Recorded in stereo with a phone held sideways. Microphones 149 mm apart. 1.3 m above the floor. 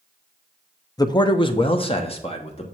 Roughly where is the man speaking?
Left.